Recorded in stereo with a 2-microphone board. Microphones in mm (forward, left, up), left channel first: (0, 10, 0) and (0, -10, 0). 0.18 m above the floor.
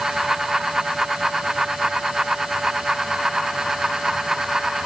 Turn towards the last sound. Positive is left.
No sound to turn to.